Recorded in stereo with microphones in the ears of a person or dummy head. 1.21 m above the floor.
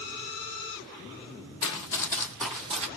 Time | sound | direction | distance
1.6 | running footsteps | 35° left (ahead or behind) | 1.5 m